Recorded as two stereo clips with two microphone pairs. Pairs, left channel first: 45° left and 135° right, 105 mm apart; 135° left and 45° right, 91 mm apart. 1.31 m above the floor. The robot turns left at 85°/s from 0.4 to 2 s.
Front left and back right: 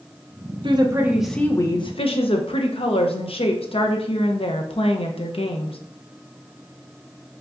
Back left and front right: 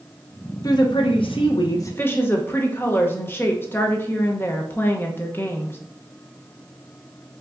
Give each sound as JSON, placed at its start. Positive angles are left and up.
{"t": 0.6, "sound": "a woman speaking", "azimuth_deg": -175, "distance_m": 0.8}